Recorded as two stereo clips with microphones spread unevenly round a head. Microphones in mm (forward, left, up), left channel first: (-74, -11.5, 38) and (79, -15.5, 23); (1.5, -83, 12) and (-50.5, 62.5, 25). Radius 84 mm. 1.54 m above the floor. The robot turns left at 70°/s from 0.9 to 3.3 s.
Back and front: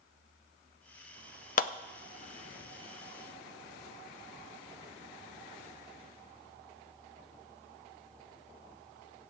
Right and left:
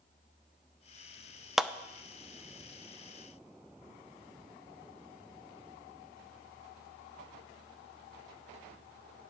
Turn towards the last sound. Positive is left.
turn(degrees=75)